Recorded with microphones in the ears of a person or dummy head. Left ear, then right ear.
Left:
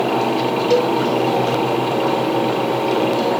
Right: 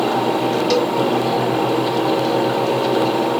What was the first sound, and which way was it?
A cowbell, 45° right (ahead or behind).